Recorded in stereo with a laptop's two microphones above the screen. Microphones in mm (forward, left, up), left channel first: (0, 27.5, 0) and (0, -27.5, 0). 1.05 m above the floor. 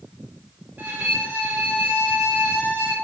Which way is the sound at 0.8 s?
35° right (ahead or behind).